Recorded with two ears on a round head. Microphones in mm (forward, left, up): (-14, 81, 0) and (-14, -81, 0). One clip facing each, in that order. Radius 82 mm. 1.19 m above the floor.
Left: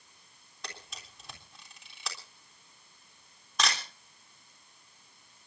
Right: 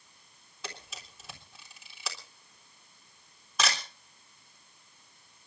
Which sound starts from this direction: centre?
A camera shutter, at 0.6 s.